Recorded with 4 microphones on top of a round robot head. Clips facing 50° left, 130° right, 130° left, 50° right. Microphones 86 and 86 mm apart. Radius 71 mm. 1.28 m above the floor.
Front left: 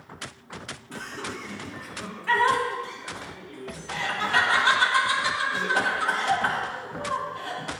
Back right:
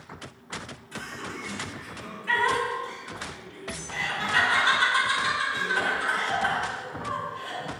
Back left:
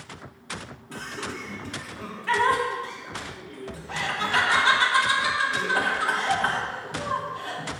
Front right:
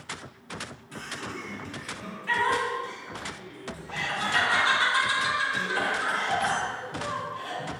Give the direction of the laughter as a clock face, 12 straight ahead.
9 o'clock.